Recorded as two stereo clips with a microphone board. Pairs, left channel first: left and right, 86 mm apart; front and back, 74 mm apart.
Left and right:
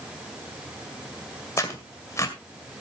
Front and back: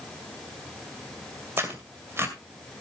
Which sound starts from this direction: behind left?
Tearing paper, at 1.6 s.